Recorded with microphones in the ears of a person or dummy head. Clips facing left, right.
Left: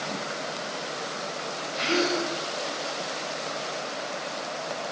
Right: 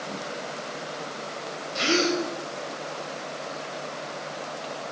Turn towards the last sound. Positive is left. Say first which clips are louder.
# right 2 dB
turn(degrees=-55)  # may be behind; listen again after turning